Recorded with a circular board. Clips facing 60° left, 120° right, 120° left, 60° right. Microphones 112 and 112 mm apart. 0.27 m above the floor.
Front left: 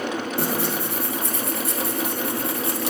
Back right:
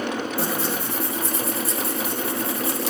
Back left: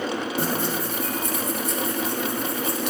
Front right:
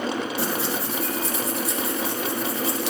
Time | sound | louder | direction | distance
0.4 | tearing paper | front left 1 dB, back left 1 dB | 85° left | 1.5 m